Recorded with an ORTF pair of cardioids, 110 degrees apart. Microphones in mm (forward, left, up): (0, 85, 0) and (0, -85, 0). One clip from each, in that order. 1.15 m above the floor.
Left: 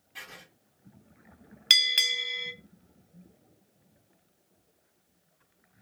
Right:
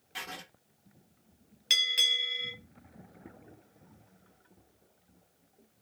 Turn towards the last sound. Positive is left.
turn(degrees=45)